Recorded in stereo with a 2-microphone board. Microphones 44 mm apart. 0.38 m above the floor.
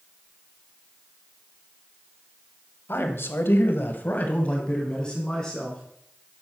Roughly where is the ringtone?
No ringtone in this recording.